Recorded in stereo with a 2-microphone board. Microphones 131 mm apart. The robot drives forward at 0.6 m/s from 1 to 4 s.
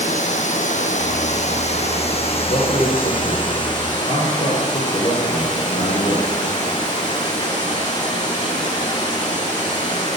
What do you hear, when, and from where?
0.0 s running water: 70° left (ahead or behind), 1.5 m; by 10.2 s 35° left (ahead or behind), 2.5 m
2.4 s a man speaking: 60° left (ahead or behind), 4 m; by 6.4 s 70° left (ahead or behind), 4 m